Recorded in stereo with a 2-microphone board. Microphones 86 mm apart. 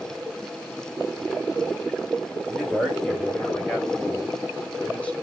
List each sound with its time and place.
2.5 s a man speaking: centre (ahead or behind), 4.5 m; by 5.1 s 15° left (ahead or behind), 3 m